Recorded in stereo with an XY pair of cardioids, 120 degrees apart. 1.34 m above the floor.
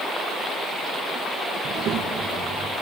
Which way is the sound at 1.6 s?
65° right.